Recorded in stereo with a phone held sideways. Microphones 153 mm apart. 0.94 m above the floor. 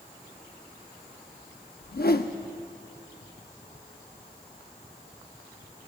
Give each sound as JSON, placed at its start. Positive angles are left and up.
{"t": 1.8, "sound": "a whoosh", "side_deg": 75, "distance_m": 0.7}